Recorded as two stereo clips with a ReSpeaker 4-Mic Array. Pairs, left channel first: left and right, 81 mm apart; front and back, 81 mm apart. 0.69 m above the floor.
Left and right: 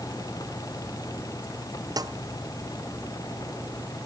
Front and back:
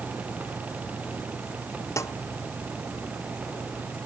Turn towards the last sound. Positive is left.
turn(degrees=-55)